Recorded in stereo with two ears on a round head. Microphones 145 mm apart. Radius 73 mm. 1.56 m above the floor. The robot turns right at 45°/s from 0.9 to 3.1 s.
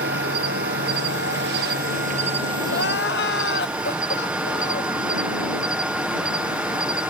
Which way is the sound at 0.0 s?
105° right.